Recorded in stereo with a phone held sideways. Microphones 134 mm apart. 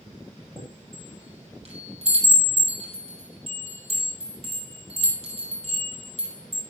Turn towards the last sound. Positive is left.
turn(degrees=-50)  # may be behind; listen again after turning